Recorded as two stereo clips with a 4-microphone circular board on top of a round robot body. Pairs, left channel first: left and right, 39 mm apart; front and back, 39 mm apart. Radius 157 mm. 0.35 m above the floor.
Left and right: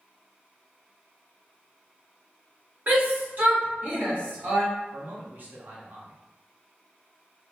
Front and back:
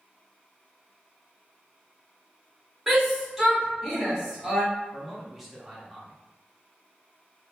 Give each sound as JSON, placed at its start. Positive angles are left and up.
{"t": 2.9, "sound": "a shout", "azimuth_deg": -100, "distance_m": 1.7}
{"t": 4.9, "sound": "a man speaking", "azimuth_deg": -90, "distance_m": 1.0}